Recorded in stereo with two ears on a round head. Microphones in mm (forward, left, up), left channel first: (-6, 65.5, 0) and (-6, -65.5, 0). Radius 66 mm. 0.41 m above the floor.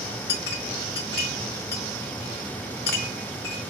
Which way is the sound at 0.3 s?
70° left (ahead or behind).